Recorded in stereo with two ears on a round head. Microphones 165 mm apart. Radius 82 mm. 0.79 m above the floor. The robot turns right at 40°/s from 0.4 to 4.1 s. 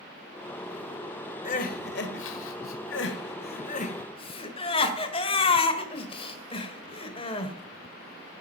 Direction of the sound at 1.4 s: 40° left (ahead or behind).